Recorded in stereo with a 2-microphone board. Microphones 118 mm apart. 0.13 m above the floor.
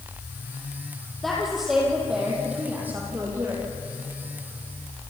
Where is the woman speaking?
Centre (ahead or behind), 5 m; by 3.6 s 20° right (ahead or behind), 5.5 m.